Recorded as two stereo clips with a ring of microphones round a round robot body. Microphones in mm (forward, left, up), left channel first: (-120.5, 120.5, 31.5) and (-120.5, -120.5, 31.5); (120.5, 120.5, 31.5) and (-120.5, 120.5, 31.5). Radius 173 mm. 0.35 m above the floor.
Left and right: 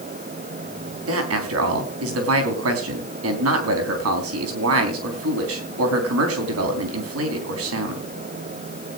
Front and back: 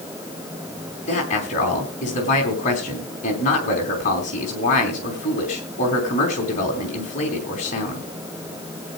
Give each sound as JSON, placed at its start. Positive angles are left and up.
{"t": 1.1, "sound": "a man speaking", "azimuth_deg": -65, "distance_m": 3.5}